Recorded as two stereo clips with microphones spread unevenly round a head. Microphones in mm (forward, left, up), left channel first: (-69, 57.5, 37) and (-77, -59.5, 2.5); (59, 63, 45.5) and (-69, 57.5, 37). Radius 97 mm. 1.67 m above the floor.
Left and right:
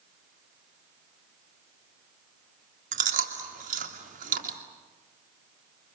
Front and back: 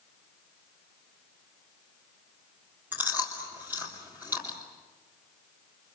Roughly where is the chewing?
Right.